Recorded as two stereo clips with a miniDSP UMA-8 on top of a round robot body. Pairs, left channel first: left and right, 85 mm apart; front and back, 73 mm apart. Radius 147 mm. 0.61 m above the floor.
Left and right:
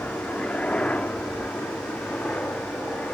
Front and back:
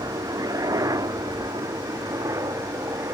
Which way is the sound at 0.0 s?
165° left.